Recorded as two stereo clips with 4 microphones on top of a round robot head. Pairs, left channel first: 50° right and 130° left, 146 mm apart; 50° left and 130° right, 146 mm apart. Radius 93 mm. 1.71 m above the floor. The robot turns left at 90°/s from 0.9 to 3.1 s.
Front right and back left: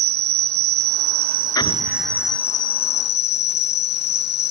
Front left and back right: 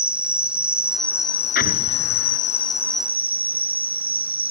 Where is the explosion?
20° left; by 2.4 s 55° right.